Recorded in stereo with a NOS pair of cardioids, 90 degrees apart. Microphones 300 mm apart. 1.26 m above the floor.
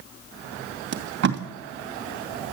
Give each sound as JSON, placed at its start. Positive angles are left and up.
{"t": 0.9, "sound": "tape being pulled", "azimuth_deg": -60, "distance_m": 2.5}